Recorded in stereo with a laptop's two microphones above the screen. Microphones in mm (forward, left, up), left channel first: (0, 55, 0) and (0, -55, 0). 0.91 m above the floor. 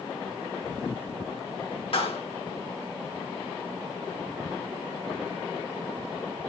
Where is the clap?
55° left (ahead or behind), 2.0 m.